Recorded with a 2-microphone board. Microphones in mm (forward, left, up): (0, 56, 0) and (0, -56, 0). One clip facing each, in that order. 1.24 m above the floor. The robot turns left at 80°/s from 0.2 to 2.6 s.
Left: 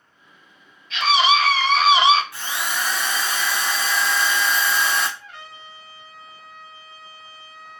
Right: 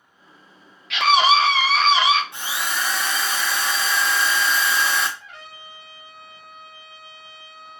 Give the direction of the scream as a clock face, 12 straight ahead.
4 o'clock.